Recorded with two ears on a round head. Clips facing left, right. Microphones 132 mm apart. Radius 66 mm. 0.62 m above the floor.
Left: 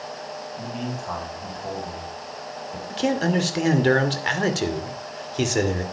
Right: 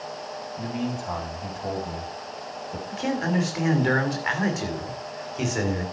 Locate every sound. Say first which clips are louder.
0.6 s a man speaking: right 3 dB; 15° right (ahead or behind), 3.5 m
2.9 s a man speaking: left 4 dB; 40° left (ahead or behind), 2 m